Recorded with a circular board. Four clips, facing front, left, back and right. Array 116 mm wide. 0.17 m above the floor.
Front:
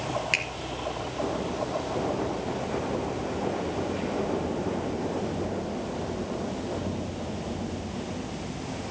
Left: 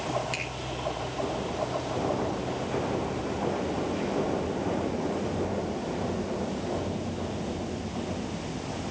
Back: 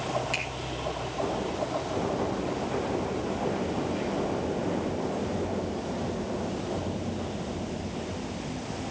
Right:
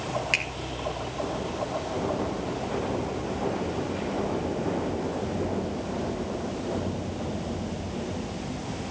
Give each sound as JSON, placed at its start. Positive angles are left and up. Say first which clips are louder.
{"t": 0.3, "sound": "a finger snap", "louder": "right 3 dB, front 2 dB", "azimuth_deg": -45, "distance_m": 3.0}